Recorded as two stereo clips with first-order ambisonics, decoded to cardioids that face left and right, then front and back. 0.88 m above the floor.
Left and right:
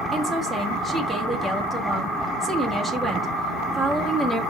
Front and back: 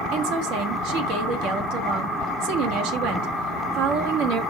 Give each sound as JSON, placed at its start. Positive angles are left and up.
{"t": 0.1, "sound": "a woman speaking", "azimuth_deg": 175, "distance_m": 1.5}